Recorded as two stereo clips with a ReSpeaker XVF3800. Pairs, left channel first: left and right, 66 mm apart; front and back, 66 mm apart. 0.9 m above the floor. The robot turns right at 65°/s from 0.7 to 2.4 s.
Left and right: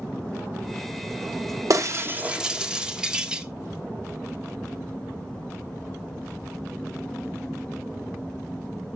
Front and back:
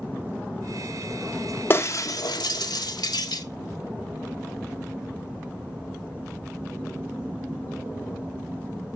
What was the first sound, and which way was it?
Breaking glass, 55° right.